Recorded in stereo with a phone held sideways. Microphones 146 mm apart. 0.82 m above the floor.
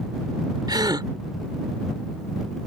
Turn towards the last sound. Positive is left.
turn(degrees=-30)  # may be behind; listen again after turning